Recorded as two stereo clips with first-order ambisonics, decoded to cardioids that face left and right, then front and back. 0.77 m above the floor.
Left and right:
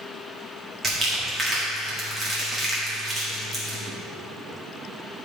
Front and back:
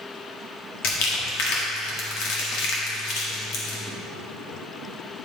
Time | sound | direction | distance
0.8 | crumpling | 15° right | 1.6 m